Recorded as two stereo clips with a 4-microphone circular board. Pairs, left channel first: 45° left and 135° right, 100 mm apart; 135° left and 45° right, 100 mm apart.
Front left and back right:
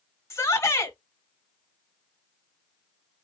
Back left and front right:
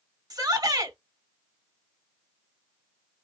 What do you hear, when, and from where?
0.3 s a shout: 10° right, 1.7 m